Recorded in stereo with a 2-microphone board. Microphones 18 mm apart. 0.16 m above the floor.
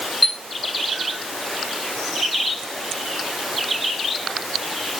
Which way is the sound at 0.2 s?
5° right (ahead or behind).